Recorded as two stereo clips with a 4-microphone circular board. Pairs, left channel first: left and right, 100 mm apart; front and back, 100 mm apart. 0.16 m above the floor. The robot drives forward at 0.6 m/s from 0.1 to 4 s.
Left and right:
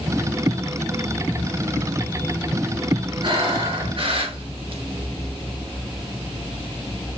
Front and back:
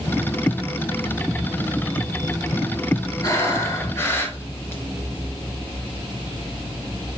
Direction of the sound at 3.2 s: 55° right.